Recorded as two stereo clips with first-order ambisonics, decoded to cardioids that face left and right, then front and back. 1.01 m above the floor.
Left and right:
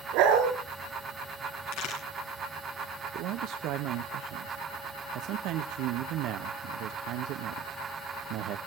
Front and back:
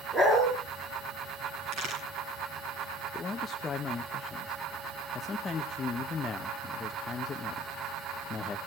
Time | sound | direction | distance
0.1 | a dog barking | 110° right | 4.5 m
1.7 | a crack | 135° left | 8 m
3.1 | a man speaking | 70° right | 0.8 m